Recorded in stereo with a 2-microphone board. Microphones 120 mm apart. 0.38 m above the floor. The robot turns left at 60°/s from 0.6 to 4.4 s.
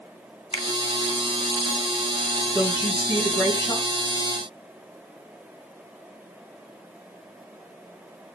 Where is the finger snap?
50° left (ahead or behind), 0.9 m.